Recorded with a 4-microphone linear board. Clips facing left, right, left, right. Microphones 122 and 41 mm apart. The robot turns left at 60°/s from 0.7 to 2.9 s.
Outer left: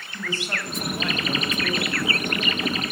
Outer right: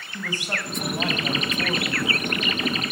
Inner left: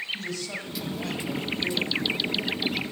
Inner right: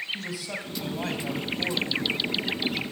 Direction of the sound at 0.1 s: 15° right.